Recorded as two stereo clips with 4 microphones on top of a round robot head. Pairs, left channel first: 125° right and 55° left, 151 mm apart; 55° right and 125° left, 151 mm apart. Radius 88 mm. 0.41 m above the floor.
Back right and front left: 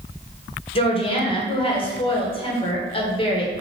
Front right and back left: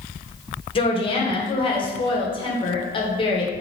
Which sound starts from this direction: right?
A woman speaking, at 0.8 s.